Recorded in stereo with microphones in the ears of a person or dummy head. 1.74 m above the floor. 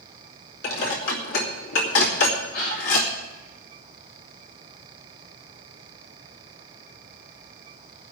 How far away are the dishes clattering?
About 2.5 m.